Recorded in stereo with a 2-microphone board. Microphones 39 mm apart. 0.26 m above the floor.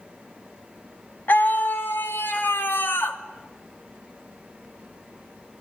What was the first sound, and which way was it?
A scream, 55° left (ahead or behind).